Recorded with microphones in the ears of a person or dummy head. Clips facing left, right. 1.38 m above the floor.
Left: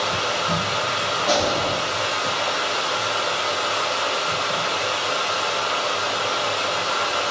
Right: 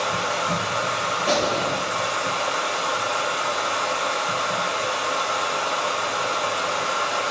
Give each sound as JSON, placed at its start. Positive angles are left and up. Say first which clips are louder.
{"t": 0.0, "sound": "running water", "louder": "left 1 dB", "side_deg": -30, "distance_m": 2.0}
{"t": 1.3, "sound": "a gunshot", "louder": "left 1 dB", "side_deg": -25, "distance_m": 1.6}